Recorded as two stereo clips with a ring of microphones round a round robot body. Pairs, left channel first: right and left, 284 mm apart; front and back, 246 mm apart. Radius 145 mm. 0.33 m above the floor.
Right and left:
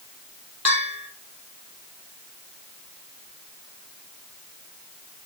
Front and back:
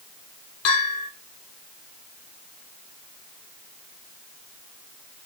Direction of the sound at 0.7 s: 5° right.